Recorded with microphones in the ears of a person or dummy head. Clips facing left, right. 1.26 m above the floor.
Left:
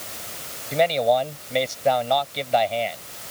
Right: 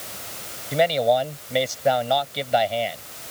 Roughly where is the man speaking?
Centre.